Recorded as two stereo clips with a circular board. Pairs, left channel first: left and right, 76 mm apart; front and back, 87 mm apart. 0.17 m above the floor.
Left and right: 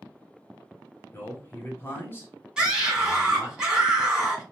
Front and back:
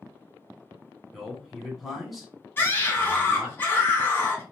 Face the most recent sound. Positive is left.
turn(degrees=-25)